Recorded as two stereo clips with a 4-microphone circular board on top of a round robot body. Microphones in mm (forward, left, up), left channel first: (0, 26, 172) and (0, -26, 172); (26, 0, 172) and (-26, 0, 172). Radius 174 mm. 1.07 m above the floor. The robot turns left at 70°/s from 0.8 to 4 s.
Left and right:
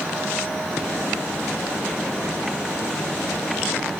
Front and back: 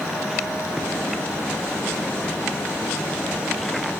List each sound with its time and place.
Only background noise.